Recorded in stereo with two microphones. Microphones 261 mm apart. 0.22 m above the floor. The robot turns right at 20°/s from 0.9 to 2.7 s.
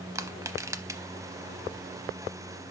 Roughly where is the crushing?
Centre.